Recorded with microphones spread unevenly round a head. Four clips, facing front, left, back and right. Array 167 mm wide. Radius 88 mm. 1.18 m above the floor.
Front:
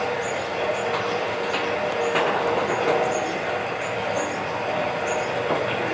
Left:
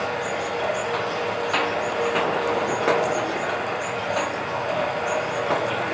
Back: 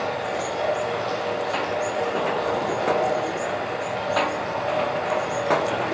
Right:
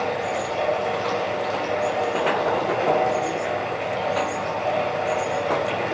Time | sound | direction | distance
0.0 | running water | 100° right | 5 m